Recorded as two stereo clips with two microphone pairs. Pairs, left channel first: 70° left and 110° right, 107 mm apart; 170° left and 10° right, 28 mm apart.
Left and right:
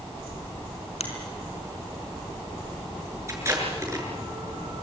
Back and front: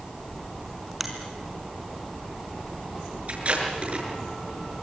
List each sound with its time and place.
1.0 s a finger snap: 75° left, 4.5 m
3.3 s tape being pulled: 50° right, 7 m